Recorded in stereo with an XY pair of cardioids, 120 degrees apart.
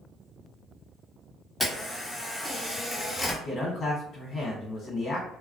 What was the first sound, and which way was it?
A camera shutter, 15° left.